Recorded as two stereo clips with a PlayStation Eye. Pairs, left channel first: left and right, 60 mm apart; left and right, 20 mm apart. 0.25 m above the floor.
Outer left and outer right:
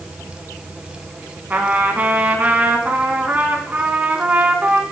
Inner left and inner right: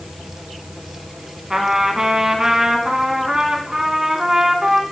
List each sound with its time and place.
1.5 s a trumpet: 30° right (ahead or behind), 2.5 m